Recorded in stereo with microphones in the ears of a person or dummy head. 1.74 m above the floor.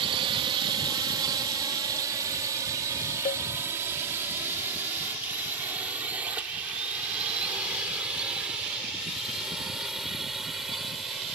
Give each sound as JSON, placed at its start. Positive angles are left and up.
{"t": 0.0, "sound": "a drone", "side_deg": -30}
{"t": 3.2, "sound": "a cowbell", "side_deg": 40}